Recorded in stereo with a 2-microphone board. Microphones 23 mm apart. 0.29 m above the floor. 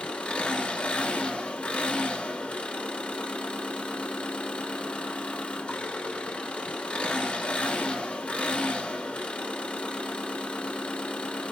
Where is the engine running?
65° left (ahead or behind), 1.0 m.